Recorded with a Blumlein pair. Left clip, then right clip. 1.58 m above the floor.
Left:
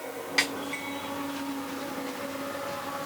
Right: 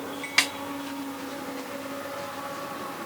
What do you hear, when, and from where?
0.4 s a snare drum: 70° right, 1.1 m